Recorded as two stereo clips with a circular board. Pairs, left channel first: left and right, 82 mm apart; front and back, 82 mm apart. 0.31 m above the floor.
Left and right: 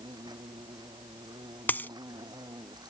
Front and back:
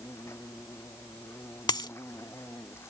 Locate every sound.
0.0 s an insect: 55° right
1.7 s a dropped coin: 25° left